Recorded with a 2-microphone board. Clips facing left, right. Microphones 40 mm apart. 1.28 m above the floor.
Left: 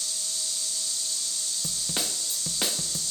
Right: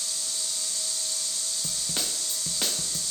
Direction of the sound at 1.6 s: 10° left (ahead or behind).